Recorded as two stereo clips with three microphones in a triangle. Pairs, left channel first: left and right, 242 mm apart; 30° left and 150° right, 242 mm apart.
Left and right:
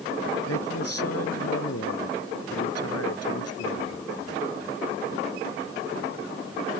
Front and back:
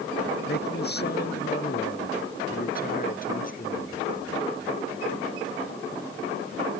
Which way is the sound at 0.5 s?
75° left.